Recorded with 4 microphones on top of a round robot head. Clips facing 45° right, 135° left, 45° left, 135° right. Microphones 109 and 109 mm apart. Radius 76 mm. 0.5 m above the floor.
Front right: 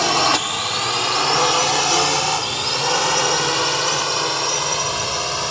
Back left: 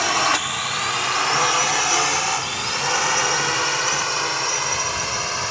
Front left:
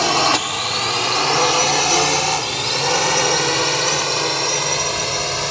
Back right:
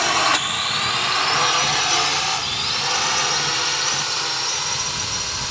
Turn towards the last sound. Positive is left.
turn(degrees=25)